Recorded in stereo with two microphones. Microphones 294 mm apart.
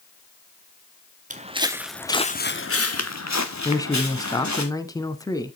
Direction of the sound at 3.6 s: 15° left (ahead or behind).